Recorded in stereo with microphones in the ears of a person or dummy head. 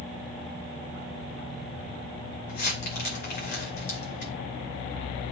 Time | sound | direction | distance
2.5 | crumpling | 50° left (ahead or behind) | 2.5 m